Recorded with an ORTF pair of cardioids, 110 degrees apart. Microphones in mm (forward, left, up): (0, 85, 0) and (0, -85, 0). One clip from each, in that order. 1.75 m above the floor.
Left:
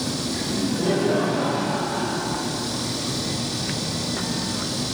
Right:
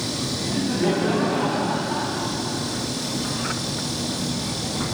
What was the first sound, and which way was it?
Laughter, 40° right.